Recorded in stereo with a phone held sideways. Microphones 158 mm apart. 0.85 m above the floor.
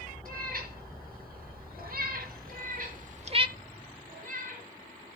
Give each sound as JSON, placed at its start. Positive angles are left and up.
{"t": 0.2, "sound": "a cat meowing", "side_deg": -70, "distance_m": 3.5}
{"t": 2.5, "sound": "a cat meowing", "side_deg": -65, "distance_m": 7.5}